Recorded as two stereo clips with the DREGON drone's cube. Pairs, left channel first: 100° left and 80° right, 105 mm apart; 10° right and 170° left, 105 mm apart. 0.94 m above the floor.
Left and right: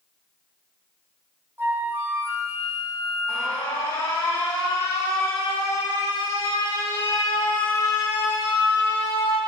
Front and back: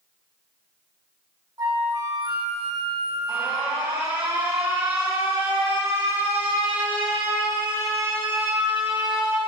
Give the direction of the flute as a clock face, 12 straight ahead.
5 o'clock.